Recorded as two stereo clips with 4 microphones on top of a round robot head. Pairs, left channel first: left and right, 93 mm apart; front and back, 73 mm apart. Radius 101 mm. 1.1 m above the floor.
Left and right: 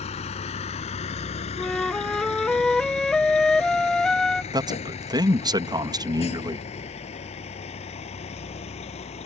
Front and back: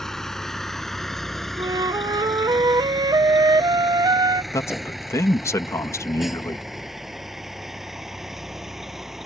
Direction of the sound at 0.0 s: 85° left.